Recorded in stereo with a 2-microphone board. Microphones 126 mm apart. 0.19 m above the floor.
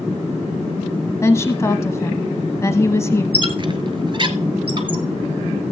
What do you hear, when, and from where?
1.2 s a woman speaking: 25° left (ahead or behind), 1.0 m
3.3 s a squeak: 40° right (ahead or behind), 0.9 m